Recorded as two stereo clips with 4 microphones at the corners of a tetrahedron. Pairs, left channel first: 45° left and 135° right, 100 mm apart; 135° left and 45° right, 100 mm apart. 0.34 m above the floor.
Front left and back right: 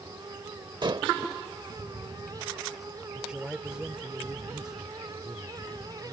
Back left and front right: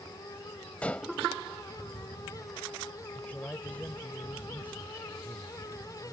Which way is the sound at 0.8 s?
150° right.